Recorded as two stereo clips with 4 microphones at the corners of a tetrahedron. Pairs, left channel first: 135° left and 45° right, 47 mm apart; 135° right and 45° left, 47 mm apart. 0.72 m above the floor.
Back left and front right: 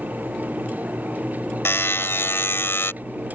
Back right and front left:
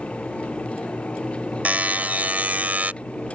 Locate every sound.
1.6 s a buzzer: 100° left